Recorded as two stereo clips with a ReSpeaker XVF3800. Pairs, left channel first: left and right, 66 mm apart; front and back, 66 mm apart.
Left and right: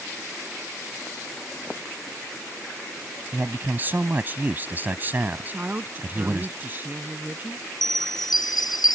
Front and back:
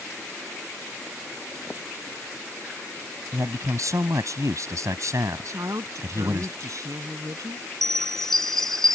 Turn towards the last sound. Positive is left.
turn(degrees=80)